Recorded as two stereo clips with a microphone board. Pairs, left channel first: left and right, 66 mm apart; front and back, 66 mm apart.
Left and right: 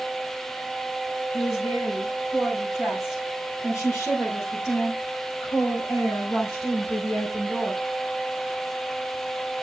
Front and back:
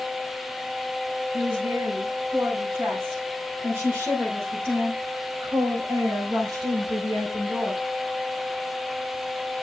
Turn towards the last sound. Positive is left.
turn(degrees=150)